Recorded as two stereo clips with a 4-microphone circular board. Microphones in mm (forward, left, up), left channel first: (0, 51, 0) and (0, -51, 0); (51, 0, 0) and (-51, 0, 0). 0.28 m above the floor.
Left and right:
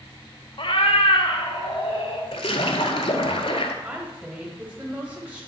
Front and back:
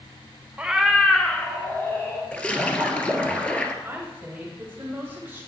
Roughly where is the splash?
Left.